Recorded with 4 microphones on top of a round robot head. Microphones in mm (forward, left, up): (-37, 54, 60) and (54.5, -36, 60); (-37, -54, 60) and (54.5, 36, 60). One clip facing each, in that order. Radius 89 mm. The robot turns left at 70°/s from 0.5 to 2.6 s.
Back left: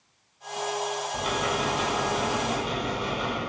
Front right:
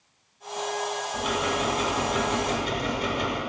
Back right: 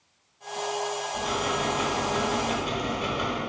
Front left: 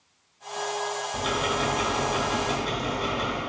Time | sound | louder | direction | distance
1.1 | ticking | front right 2 dB, front left 2 dB | 40° left | 1.2 m